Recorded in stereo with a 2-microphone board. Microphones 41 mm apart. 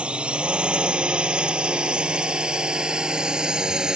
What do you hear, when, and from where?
0.0 s a drone: 25° right (ahead or behind); by 4.0 s 15° right (ahead or behind)